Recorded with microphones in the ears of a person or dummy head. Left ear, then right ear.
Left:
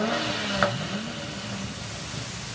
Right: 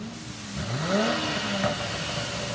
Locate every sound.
Only background noise.